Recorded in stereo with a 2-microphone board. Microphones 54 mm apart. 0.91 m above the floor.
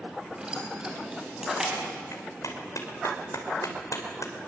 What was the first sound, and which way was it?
Keys jangling, 15° right (ahead or behind).